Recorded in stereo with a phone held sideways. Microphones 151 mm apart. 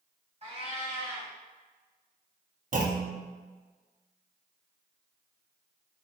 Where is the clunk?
55° right (ahead or behind), 0.6 m.